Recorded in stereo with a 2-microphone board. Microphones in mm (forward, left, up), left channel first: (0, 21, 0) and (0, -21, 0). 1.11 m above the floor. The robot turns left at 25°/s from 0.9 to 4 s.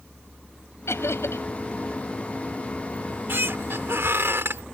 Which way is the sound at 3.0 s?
50° right (ahead or behind).